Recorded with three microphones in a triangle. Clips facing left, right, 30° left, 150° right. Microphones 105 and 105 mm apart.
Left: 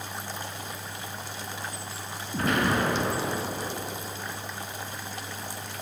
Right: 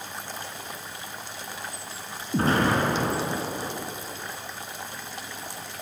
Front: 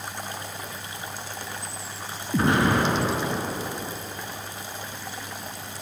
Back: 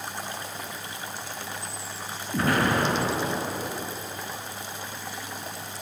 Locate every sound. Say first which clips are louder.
2.3 s an explosion: right 3 dB, front 2 dB; 35° right, 3.5 m